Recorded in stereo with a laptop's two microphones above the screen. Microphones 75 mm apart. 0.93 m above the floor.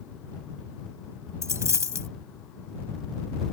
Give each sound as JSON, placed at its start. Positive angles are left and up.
{"t": 1.4, "sound": "a dropped coin", "side_deg": -40}